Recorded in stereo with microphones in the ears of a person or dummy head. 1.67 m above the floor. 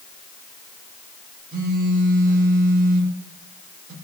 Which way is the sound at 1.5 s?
55° right (ahead or behind).